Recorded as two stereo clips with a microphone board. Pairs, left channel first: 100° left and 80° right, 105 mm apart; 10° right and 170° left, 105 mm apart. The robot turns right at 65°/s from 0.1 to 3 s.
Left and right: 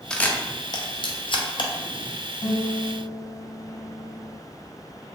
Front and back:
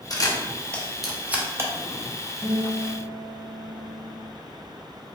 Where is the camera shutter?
20° left, 0.5 m; by 1.7 s 125° left, 0.5 m.